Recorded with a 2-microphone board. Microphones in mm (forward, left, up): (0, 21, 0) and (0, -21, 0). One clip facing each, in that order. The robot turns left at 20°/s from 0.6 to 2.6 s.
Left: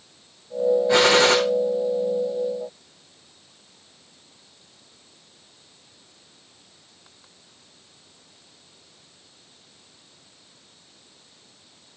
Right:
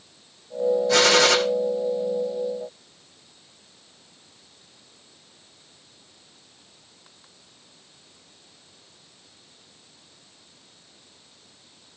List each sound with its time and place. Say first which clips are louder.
0.9 s a gunshot: left 1 dB; 25° left (ahead or behind), 4 m; by 1.4 s 35° left (ahead or behind), 4 m